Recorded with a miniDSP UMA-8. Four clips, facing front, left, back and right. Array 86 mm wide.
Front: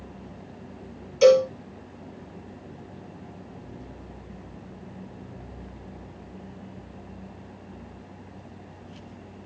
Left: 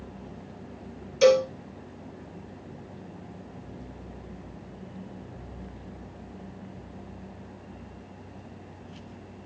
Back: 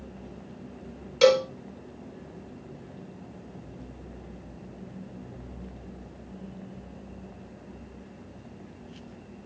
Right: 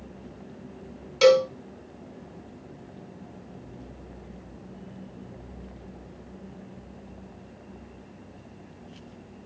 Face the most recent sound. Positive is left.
turn(degrees=-125)